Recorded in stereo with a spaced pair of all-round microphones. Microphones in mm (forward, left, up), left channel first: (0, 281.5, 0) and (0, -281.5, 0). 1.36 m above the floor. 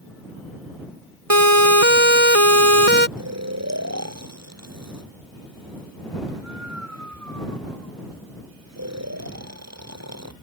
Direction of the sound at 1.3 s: 75° right (ahead or behind).